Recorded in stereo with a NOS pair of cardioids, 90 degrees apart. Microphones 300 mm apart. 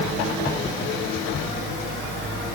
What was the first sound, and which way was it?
Only background noise.